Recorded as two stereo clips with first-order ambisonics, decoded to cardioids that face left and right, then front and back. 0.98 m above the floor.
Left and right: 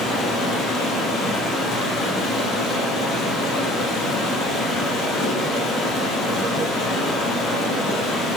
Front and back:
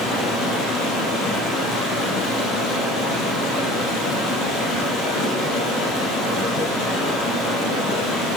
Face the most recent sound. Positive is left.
turn(degrees=35)